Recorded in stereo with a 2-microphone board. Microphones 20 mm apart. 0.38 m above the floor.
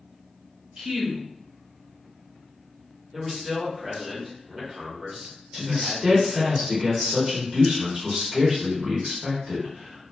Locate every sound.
0.8 s a woman speaking: 40° right (ahead or behind), 0.9 m
3.1 s a man speaking: 25° right (ahead or behind), 0.9 m
5.5 s a man speaking: 25° right (ahead or behind), 1.5 m